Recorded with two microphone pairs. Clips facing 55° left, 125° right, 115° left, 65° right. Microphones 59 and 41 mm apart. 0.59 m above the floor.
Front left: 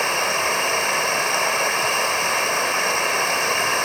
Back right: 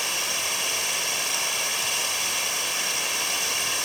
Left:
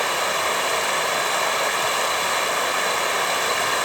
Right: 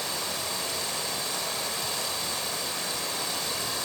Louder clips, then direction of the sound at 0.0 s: Front left 9 dB, left 11 dB; 95° left.